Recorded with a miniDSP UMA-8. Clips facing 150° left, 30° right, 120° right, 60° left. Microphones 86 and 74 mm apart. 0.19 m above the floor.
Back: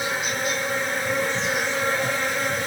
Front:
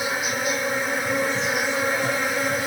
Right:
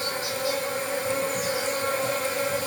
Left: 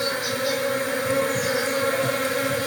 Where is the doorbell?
No doorbell in this recording.